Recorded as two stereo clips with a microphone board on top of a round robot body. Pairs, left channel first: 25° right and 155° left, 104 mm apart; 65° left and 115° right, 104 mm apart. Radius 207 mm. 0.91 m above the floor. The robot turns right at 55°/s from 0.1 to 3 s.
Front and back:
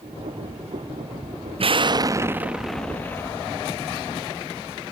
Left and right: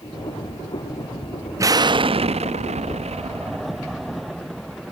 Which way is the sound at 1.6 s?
175° right.